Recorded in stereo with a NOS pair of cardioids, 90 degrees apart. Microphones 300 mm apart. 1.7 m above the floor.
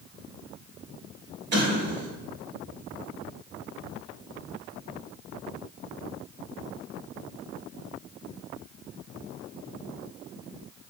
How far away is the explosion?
About 0.9 m.